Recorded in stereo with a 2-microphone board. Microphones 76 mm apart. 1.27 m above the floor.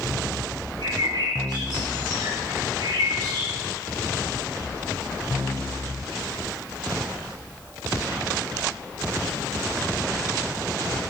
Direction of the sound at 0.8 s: 75° right (ahead or behind).